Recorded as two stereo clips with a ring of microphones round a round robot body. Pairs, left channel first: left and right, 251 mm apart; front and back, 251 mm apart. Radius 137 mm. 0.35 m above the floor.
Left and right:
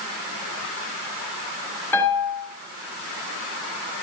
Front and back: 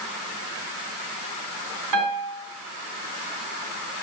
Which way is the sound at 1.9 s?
170° left.